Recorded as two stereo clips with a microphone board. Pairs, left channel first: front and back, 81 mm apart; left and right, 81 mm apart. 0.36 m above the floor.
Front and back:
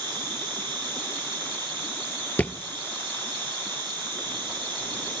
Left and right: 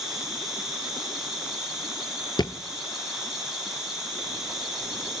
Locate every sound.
0.0 s an insect: 175° right, 8 m
2.4 s a thud: 70° left, 1.0 m